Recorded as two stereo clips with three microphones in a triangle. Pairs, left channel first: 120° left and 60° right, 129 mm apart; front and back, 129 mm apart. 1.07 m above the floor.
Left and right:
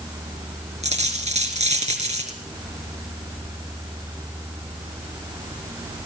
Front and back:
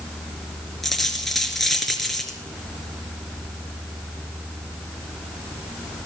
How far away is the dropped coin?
About 4 m.